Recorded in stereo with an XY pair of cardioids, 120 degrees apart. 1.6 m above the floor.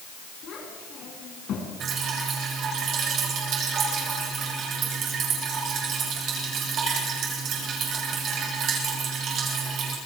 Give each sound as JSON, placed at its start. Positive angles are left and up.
{"t": 0.4, "sound": "a child speaking", "azimuth_deg": 55, "distance_m": 9.0}
{"t": 1.8, "sound": "dripping", "azimuth_deg": -55, "distance_m": 9.0}